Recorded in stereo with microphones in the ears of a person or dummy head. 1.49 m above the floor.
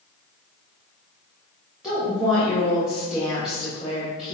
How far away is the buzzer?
No buzzer in this recording.